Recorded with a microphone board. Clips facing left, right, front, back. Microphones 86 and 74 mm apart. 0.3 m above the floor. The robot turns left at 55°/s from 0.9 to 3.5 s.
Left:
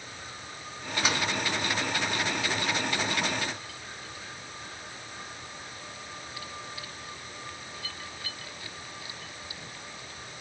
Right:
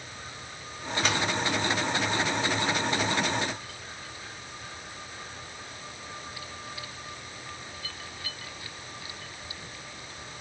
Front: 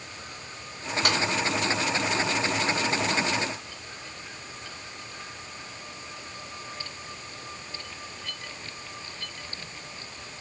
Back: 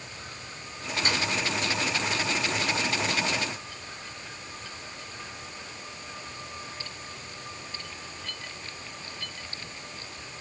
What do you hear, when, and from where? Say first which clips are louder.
1.1 s a snare drum: right 1 dB, front 3 dB; 10° left, 2.5 m; by 1.2 s straight ahead, 2.5 m